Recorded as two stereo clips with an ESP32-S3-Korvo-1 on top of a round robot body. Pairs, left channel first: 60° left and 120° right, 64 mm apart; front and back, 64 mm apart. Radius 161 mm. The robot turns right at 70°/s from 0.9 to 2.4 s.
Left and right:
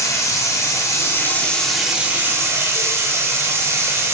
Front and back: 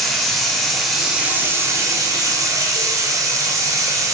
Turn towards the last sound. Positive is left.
turn(degrees=-165)